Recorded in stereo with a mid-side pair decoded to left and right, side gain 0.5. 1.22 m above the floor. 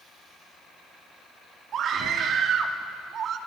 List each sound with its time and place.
1.7 s a scream: 55° right, 2.5 m